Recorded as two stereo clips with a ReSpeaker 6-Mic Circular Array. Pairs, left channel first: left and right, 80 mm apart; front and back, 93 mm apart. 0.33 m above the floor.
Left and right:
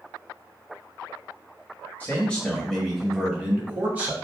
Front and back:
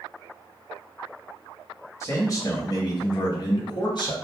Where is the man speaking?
35° left, 1.1 m; by 4.1 s 25° right, 1.7 m.